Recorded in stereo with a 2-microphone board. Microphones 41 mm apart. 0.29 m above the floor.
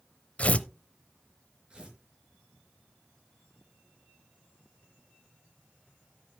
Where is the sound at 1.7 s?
25° right (ahead or behind), 4.5 m.